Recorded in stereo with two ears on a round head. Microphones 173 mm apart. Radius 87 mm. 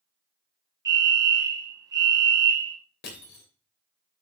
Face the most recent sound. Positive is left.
turn(degrees=55)  # may be behind; listen again after turning